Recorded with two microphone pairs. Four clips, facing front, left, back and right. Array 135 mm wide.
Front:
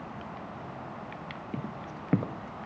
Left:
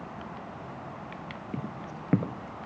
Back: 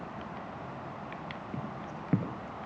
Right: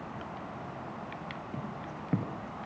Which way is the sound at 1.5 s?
40° left.